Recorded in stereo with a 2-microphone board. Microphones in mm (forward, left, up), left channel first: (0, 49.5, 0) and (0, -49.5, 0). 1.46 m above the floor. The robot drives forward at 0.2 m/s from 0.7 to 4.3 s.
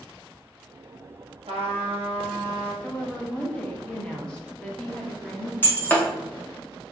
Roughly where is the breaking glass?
Centre.